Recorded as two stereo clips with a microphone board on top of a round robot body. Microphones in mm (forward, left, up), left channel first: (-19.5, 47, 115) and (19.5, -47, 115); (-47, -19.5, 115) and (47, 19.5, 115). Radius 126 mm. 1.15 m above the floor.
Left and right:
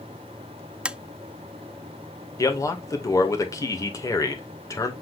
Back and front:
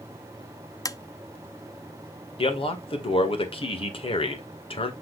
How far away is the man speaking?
About 1.8 m.